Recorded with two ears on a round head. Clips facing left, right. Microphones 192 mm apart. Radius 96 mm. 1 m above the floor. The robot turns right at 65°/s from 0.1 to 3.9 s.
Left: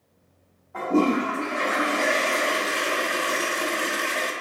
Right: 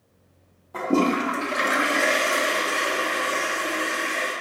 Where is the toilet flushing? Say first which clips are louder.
Even; 115° right, 0.7 m; by 4.3 s 95° left, 0.7 m.